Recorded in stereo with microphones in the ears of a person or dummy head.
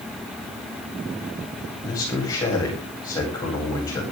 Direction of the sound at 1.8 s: 20° left (ahead or behind).